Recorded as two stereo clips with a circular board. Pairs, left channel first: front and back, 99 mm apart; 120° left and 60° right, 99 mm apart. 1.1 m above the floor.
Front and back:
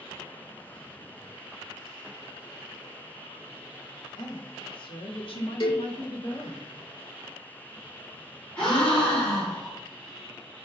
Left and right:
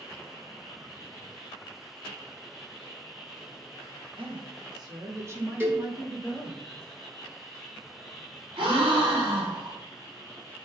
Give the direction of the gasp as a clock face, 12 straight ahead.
3 o'clock.